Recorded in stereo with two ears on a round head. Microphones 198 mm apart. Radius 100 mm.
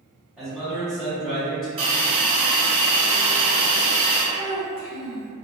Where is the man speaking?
Centre (ahead or behind), 1.4 m.